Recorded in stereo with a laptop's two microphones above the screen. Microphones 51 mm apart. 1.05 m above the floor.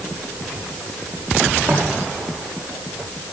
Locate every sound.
1.7 s footsteps: 60° right (ahead or behind), 5.5 m